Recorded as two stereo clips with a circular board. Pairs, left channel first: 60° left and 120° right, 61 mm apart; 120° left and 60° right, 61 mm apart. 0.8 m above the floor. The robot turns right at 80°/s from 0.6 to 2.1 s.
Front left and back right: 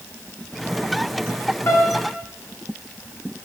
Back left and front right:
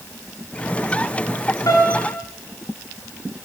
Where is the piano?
105° left, 3.5 m; by 2.2 s 140° left, 3.5 m.